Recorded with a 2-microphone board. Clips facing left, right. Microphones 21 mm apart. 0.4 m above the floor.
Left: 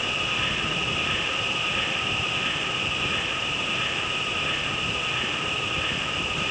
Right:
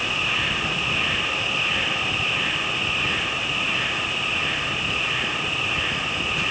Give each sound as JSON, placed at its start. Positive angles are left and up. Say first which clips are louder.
{"t": 0.0, "sound": "an insect", "louder": "right 3 dB", "side_deg": -65, "distance_m": 5.0}